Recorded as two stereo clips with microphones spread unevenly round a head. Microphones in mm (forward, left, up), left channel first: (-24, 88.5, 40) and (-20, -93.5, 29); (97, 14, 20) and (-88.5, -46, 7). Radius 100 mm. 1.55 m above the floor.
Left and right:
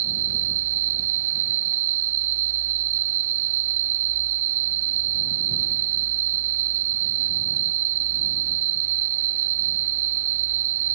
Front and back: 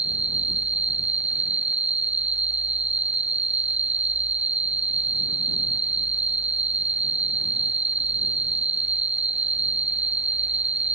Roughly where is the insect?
Right.